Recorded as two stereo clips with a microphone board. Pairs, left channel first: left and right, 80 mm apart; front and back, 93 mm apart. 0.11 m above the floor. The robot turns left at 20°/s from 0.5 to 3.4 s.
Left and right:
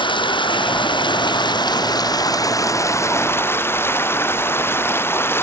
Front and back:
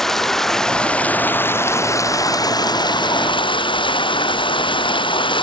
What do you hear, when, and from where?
0.0 s running water: 85° left; by 5.4 s 30° left